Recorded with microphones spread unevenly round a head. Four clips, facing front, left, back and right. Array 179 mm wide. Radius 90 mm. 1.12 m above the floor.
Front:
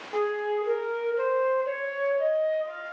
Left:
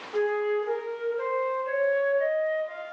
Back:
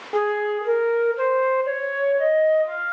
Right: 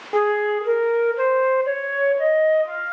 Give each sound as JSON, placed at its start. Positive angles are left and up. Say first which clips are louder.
{"t": 0.1, "sound": "a flute", "louder": "right 6 dB, back 5 dB", "azimuth_deg": -120, "distance_m": 0.9}